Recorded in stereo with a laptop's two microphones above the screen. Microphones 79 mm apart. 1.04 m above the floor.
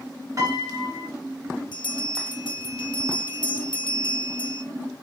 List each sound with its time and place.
0.4 s a piano: 45° right (ahead or behind), 2.5 m
1.7 s a bell: 75° left (ahead or behind), 0.7 m